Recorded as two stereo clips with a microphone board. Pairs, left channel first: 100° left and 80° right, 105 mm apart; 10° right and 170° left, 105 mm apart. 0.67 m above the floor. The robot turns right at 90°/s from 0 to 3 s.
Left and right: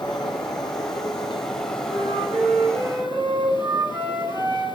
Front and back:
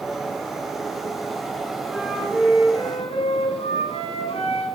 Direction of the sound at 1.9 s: 130° right.